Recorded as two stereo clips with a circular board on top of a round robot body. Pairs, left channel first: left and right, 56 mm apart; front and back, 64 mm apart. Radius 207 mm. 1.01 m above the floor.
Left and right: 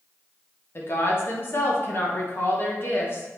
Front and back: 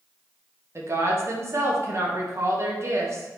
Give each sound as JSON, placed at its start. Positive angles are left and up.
{"t": 0.8, "sound": "a woman speaking", "azimuth_deg": 135, "distance_m": 2.0}